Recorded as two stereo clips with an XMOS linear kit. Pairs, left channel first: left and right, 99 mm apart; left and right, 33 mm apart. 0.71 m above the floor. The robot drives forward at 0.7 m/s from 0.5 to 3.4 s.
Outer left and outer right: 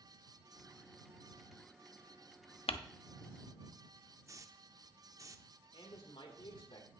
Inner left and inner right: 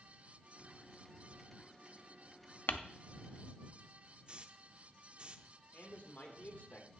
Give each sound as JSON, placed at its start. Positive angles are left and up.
{"t": 2.7, "sound": "crumpling", "side_deg": 75, "distance_m": 0.6}
{"t": 4.3, "sound": "a hiss", "side_deg": -35, "distance_m": 0.6}
{"t": 5.7, "sound": "a man speaking", "side_deg": 60, "distance_m": 2.0}